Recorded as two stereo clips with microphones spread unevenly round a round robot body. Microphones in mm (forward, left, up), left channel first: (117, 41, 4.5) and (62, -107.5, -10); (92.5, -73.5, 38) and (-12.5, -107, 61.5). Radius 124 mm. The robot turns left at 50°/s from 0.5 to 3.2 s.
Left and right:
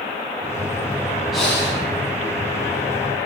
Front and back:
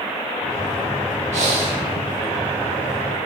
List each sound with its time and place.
1.3 s breathing: 160° left, 0.8 m; by 1.8 s 135° left, 0.8 m